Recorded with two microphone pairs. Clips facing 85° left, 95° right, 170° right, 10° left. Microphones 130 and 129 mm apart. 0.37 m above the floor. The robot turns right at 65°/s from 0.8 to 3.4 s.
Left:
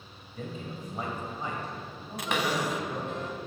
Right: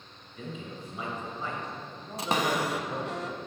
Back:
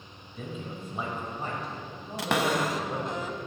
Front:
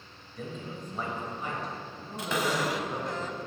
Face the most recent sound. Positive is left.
turn(degrees=-80)